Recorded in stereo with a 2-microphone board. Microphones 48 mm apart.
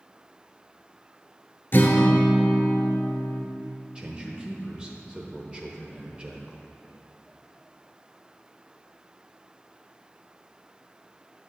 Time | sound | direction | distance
1.7 | a guitar | 50° left (ahead or behind) | 0.9 m
4.0 | a man speaking | 25° right (ahead or behind) | 0.8 m